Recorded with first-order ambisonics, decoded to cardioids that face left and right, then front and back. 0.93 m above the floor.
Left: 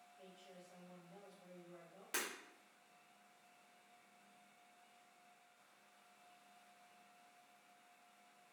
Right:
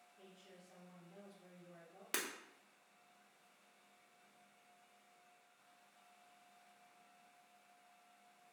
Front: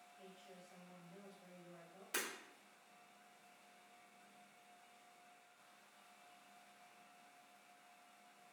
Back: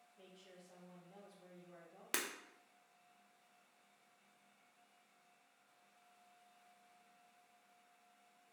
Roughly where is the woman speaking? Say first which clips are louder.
Left 2 dB, even; behind.